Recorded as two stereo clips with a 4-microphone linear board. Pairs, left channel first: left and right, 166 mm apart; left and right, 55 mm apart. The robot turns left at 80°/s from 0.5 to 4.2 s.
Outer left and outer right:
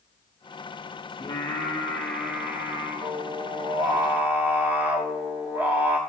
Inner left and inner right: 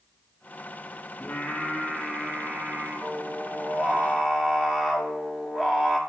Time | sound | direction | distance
1.2 | singing | 80° left | 1.0 m